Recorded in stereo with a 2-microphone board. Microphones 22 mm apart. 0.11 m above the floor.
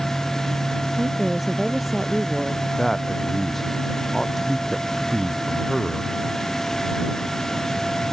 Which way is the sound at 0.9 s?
5° left (ahead or behind).